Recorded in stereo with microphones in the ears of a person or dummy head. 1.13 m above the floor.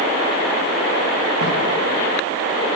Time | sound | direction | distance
1.4 | footsteps | 55° right (ahead or behind) | 5 m